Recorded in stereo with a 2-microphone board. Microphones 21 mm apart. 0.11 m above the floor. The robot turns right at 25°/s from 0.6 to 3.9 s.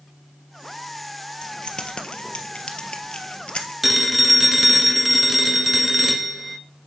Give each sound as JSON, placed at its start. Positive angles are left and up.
{"t": 1.4, "sound": "keys jangling", "side_deg": 35, "distance_m": 1.4}
{"t": 3.8, "sound": "a phone ringing", "side_deg": -10, "distance_m": 0.9}